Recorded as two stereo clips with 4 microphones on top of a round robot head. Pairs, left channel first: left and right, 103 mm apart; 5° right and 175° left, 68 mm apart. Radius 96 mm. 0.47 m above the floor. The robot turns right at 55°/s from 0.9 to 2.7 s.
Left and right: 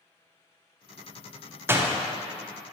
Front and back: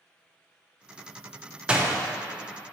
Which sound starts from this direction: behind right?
A door slam, at 1.7 s.